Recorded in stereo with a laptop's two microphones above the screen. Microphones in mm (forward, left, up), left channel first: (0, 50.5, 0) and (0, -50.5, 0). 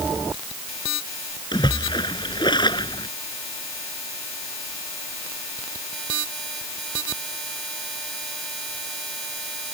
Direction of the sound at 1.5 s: 45° left (ahead or behind).